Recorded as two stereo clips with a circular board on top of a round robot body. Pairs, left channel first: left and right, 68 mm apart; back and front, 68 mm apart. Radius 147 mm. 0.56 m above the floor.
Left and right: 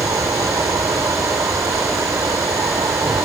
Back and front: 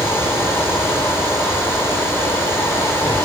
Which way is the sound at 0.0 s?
125° right.